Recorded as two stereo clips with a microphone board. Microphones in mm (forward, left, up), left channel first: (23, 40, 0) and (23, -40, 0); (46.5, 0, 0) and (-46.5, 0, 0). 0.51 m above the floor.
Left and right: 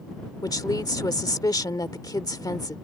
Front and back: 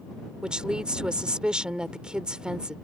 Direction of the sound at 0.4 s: 100° left.